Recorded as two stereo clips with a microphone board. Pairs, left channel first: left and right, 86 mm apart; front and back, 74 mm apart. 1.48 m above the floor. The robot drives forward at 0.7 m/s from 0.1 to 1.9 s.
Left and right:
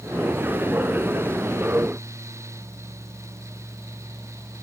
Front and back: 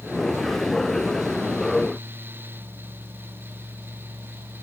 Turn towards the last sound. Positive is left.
No sound to turn to.